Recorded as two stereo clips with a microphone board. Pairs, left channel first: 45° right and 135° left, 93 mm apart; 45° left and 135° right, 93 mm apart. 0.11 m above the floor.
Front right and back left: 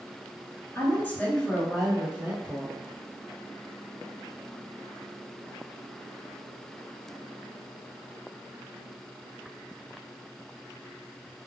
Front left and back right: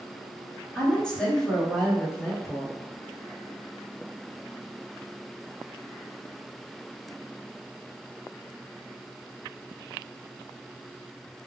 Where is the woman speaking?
20° right, 1.3 m; by 2.8 s 145° left, 1.3 m.